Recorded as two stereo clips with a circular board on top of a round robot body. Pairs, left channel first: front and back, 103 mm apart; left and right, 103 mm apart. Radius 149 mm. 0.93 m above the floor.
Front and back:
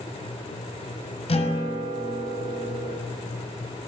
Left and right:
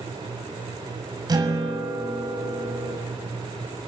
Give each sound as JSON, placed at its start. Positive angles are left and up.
{"t": 1.3, "sound": "a guitar", "azimuth_deg": -35, "distance_m": 5.0}